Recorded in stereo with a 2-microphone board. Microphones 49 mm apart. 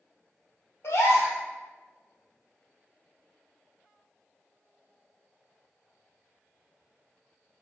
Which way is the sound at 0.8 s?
75° left (ahead or behind).